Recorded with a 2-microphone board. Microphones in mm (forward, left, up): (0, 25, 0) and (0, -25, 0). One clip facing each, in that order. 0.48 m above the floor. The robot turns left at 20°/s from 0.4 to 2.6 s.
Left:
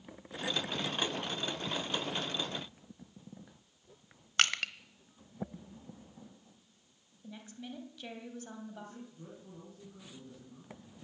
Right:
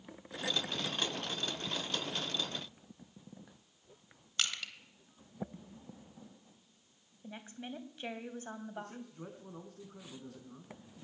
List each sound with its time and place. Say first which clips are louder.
4.4 s crushing: left 7 dB; 55° left (ahead or behind), 1.2 m
7.2 s a woman speaking: right 1 dB; 30° right (ahead or behind), 3 m
8.8 s a man speaking: right 3 dB; 70° right (ahead or behind), 4 m